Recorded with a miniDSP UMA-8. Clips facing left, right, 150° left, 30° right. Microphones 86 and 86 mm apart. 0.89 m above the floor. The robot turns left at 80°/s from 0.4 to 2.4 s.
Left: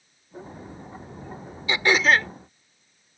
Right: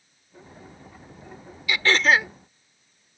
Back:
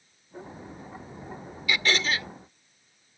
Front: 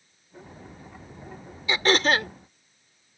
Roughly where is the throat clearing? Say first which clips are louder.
Even, front 5 dB; ahead left.